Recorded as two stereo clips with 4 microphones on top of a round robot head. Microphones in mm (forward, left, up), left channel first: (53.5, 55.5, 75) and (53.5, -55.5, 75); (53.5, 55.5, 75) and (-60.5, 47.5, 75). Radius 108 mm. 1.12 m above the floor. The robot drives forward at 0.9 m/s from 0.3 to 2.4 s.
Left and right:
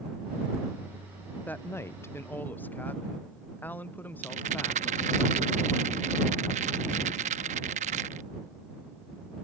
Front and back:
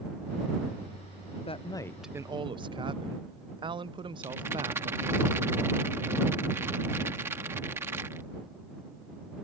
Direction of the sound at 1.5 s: 15° left.